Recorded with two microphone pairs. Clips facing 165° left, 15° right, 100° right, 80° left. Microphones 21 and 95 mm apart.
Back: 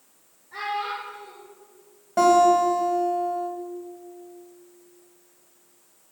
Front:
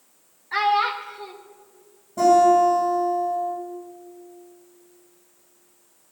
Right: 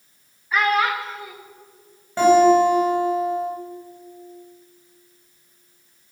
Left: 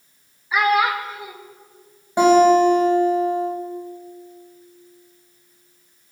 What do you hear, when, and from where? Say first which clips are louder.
0.5 s a child speaking: front 8 dB, left 2 dB; straight ahead, 1.3 m
2.2 s a guitar: front 2 dB, left 1 dB; 155° left, 3 m